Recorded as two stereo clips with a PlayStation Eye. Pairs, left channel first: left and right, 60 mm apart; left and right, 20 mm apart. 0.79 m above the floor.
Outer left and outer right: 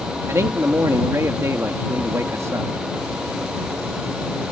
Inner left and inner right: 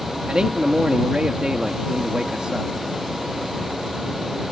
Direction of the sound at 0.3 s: 50° right (ahead or behind).